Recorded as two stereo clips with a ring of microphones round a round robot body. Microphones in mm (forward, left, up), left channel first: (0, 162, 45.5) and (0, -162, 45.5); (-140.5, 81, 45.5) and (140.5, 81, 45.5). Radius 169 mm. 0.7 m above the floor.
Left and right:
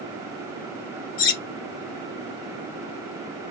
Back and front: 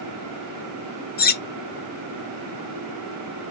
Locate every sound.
1.2 s cutlery clinking: 120° left, 1.0 m